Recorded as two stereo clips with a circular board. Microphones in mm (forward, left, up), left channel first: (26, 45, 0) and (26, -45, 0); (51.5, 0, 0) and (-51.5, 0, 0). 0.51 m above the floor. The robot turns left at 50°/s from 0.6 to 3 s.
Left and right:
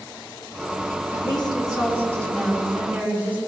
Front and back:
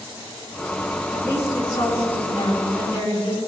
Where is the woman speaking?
75° left, 5.5 m; by 3.4 s 20° right, 5.5 m.